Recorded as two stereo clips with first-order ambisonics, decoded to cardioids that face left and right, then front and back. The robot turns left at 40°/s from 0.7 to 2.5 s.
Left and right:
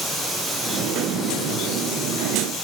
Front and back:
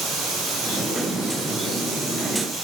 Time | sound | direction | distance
0.0 | running water | 155° right | 1.2 m